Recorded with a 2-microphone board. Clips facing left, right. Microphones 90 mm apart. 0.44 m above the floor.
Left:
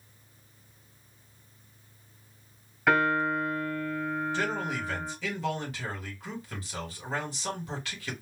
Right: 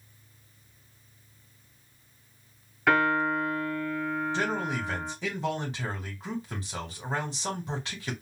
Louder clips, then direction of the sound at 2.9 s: Right 1 dB; 5° right (ahead or behind).